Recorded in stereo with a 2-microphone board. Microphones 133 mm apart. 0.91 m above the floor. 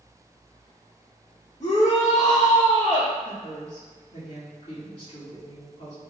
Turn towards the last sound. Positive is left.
turn(degrees=70)  # may be behind; listen again after turning